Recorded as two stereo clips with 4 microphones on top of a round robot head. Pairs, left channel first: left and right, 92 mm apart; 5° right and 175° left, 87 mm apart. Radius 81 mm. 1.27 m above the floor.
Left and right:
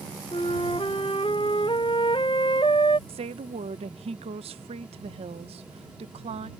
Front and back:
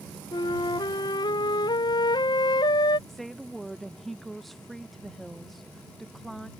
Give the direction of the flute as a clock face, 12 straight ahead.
11 o'clock.